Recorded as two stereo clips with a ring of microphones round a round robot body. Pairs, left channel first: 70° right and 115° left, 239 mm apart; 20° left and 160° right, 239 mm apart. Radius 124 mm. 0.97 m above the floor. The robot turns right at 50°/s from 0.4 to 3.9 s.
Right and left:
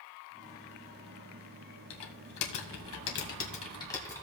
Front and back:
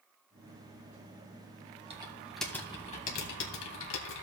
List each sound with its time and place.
1.9 s typing on a keyboard: 90° right, 1.9 m; by 4.2 s 10° left, 1.9 m